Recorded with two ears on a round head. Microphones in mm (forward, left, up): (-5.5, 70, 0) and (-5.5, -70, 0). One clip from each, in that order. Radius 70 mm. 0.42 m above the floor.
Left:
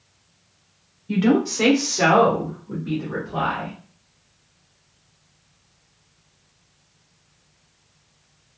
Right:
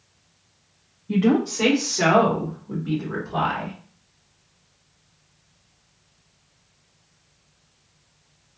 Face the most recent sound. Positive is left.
turn(degrees=-40)  # may be behind; listen again after turning